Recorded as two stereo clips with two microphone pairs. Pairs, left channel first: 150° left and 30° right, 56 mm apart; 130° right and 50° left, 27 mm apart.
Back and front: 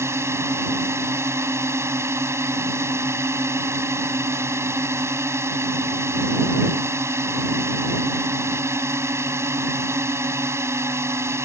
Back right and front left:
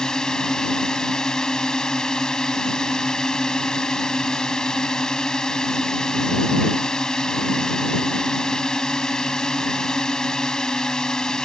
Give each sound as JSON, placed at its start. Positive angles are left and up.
{"t": 0.0, "sound": "a drone", "azimuth_deg": -65}